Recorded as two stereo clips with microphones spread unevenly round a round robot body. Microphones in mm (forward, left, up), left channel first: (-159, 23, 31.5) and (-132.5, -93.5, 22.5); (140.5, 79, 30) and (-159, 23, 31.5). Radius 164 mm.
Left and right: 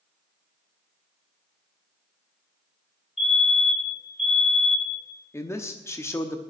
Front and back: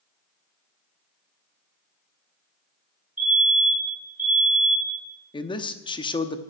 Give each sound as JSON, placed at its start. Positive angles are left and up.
{"t": 3.2, "sound": "a fire alarm", "azimuth_deg": 125, "distance_m": 4.5}
{"t": 5.3, "sound": "a man speaking", "azimuth_deg": 60, "distance_m": 0.8}